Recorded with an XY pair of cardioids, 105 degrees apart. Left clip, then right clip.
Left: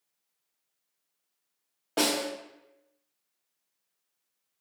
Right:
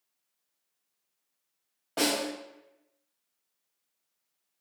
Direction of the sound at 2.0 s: 30° left.